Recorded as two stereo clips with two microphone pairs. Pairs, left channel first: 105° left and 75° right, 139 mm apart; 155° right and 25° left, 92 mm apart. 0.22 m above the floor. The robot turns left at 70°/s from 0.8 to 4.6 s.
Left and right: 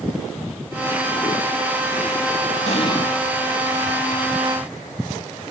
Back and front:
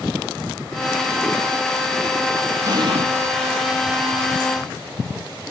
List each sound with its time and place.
2.7 s an explosion: 70° left, 0.5 m; by 3.1 s 40° left, 0.5 m